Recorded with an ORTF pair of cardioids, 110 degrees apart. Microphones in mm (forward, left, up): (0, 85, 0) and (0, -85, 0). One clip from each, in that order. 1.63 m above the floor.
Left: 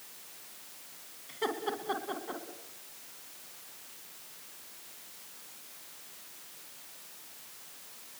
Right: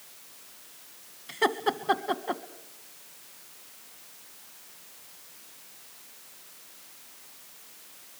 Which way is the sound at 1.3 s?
55° right.